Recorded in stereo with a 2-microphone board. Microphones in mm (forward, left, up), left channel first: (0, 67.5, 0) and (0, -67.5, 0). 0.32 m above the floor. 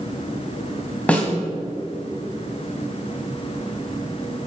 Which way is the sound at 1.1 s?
10° left (ahead or behind).